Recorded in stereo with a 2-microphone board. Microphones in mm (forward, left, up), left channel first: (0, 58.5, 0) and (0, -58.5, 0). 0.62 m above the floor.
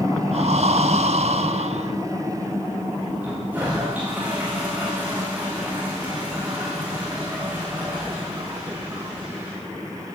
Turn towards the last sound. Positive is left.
turn(degrees=-15)  # may be behind; listen again after turning